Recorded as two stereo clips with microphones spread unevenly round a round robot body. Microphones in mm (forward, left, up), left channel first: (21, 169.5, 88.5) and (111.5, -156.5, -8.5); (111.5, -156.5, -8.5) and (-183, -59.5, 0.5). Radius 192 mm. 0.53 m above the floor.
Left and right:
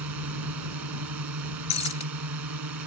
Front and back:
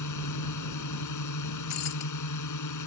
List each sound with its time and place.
0.0 s a drone: 40° right
1.7 s breaking glass: 35° left